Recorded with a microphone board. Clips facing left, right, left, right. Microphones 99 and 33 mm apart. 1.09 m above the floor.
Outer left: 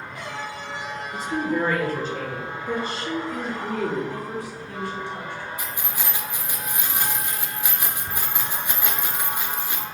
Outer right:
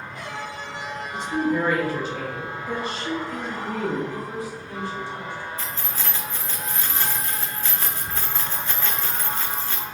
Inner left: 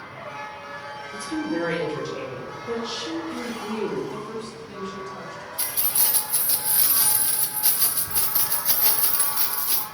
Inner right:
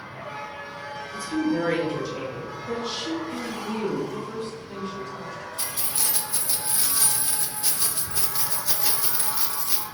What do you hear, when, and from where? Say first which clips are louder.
1.1 s a woman speaking: outer right 2 dB, inner right 2 dB; 40° left (ahead or behind), 1.2 m
4.1 s a woman speaking: even, inner right 1 dB; 60° left (ahead or behind), 1.8 m
5.6 s keys jangling: even, inner left 1 dB; 15° left (ahead or behind), 0.5 m